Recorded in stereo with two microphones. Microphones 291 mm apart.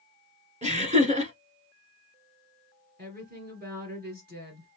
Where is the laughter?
25° right (ahead or behind), 1.4 m.